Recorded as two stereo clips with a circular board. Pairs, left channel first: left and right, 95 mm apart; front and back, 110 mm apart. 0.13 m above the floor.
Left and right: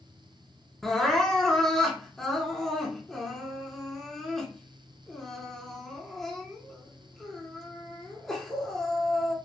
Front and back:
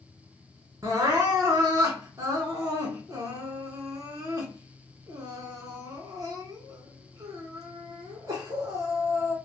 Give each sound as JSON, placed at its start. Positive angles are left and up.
{"t": 0.8, "sound": "crying", "azimuth_deg": 175, "distance_m": 1.2}